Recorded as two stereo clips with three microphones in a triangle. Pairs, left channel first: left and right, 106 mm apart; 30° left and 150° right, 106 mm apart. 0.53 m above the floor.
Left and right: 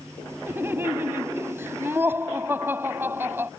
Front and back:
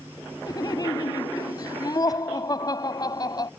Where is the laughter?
20° right.